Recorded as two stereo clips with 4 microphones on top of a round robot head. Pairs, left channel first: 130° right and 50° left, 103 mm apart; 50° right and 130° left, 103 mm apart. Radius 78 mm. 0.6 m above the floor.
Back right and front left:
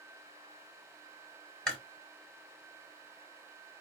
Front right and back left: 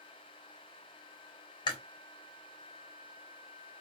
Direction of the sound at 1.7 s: 50° right.